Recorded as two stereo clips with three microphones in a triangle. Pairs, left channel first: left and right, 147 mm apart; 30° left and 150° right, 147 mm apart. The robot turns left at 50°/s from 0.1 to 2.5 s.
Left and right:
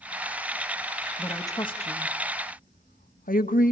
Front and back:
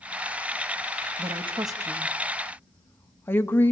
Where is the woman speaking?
170° left, 1.8 m; by 3.7 s 105° left, 1.8 m.